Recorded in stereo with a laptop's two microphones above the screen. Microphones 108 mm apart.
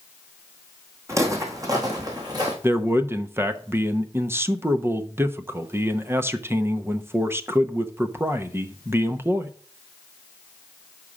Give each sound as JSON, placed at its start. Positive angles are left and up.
{"t": 1.1, "sound": "footsteps", "side_deg": -25, "distance_m": 1.9}
{"t": 2.6, "sound": "a man speaking", "side_deg": -20, "distance_m": 0.8}